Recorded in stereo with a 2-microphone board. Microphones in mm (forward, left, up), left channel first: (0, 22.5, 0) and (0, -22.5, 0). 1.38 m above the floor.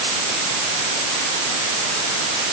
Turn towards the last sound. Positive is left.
No sound to turn to.